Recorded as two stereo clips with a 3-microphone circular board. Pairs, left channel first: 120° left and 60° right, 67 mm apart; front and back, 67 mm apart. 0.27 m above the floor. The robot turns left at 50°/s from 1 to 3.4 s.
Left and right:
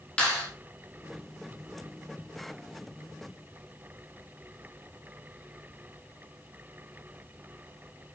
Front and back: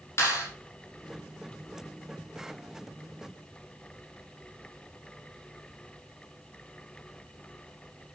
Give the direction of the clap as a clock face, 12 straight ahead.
10 o'clock.